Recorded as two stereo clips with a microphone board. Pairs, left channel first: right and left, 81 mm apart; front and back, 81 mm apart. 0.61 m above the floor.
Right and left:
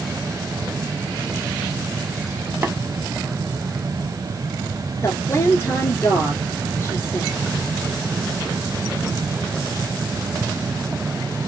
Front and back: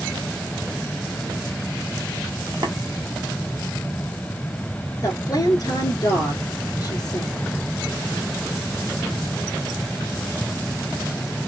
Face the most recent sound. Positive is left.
turn(degrees=-40)